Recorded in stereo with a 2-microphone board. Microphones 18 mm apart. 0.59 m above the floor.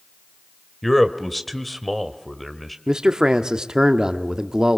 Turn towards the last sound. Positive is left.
turn(degrees=-45)  # may be behind; listen again after turning